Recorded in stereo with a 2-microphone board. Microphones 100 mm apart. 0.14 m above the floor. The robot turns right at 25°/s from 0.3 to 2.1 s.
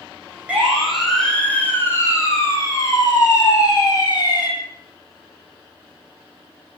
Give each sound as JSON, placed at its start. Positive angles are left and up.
{"t": 0.5, "sound": "a siren", "side_deg": -15, "distance_m": 9.0}